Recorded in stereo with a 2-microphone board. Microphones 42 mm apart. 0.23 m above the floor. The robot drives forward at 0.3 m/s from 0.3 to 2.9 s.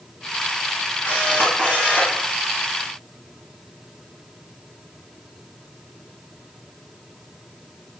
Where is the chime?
No chime in this recording.